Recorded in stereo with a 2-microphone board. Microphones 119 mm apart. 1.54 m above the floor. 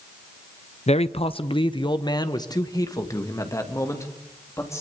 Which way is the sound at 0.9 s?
65° left (ahead or behind).